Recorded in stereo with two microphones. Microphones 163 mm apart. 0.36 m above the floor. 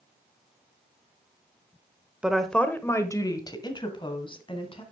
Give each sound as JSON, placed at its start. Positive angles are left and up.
{"t": 2.2, "sound": "a woman speaking", "side_deg": -5, "distance_m": 0.8}